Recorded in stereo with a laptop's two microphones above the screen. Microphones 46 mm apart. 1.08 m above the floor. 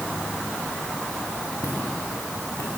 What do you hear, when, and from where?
1.6 s footsteps: 75° left (ahead or behind), 6 m; by 2.7 s 80° left, 5.5 m